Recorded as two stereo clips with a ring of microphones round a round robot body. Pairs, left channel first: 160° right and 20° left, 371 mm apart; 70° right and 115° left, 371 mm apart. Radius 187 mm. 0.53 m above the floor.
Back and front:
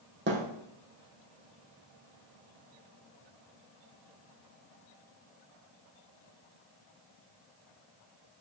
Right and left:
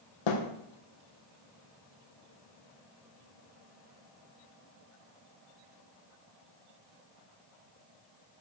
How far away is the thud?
About 3 m.